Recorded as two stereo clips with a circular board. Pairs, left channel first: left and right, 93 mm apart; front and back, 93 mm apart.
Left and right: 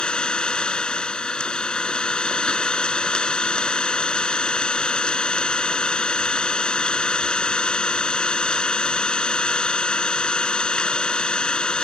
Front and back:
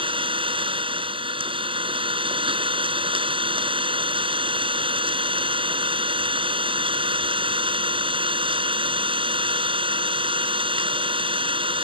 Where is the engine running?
170° left.